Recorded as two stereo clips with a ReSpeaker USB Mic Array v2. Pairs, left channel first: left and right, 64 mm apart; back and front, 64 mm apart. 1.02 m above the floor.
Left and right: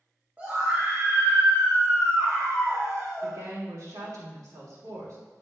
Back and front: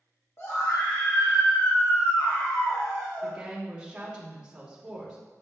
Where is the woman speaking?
75° right, 3 m.